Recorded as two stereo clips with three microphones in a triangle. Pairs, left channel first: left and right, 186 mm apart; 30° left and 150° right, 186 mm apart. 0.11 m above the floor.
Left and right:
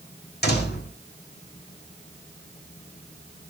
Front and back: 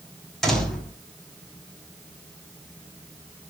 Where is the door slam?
120° left, 5.5 m.